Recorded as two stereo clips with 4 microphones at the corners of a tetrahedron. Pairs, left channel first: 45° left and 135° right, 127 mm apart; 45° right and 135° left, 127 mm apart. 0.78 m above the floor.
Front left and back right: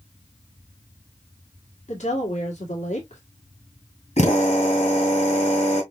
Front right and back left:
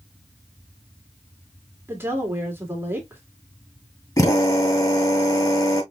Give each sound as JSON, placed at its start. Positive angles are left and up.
{"t": 1.9, "sound": "a woman speaking", "azimuth_deg": 65, "distance_m": 2.0}
{"t": 4.2, "sound": "a drill", "azimuth_deg": 20, "distance_m": 2.5}